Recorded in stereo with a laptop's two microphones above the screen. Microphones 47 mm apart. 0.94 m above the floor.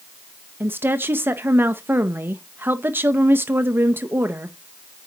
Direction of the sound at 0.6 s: 50° right (ahead or behind).